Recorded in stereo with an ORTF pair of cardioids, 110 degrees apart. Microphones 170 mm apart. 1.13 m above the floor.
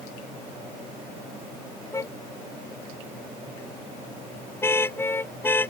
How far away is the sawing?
No sawing in this recording.